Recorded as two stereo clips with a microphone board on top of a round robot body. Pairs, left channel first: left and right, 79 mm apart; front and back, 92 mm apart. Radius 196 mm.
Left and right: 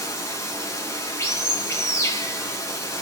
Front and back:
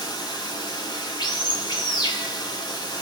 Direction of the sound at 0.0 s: 40° left.